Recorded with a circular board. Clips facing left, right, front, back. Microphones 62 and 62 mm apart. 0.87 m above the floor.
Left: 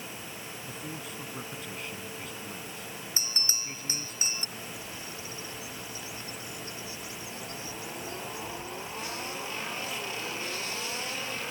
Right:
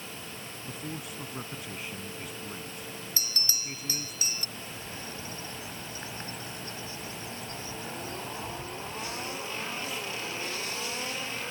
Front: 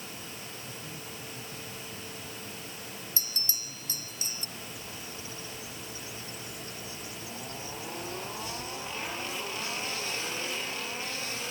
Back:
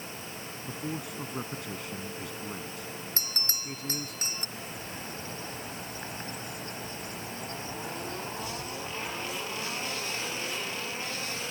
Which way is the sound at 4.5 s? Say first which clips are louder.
Even, back 3 dB; 140° right.